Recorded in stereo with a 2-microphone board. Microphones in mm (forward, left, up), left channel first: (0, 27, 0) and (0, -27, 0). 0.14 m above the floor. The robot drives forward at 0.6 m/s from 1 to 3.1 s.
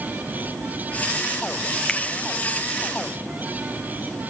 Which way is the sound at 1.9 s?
15° left (ahead or behind).